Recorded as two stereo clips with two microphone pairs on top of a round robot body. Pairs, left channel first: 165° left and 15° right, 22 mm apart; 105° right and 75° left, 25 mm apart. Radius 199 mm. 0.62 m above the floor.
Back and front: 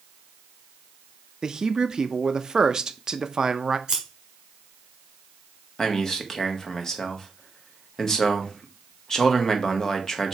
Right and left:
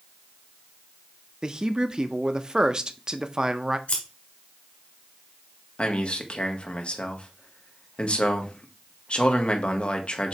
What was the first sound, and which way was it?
A man speaking, 30° left.